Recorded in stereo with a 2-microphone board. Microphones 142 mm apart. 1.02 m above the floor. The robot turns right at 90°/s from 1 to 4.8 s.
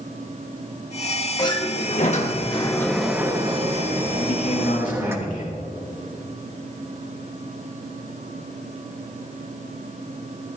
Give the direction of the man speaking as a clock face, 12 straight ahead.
10 o'clock.